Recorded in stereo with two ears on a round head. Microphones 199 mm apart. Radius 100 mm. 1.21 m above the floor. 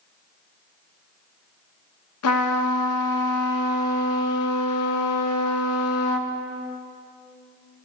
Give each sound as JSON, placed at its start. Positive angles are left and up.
{"t": 2.2, "sound": "a trumpet", "side_deg": 75, "distance_m": 0.8}